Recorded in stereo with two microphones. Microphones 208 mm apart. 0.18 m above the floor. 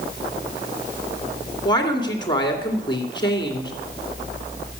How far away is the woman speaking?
About 2.5 m.